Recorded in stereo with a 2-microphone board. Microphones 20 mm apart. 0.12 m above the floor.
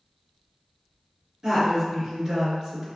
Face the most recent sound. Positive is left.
turn(degrees=-25)  # may be behind; listen again after turning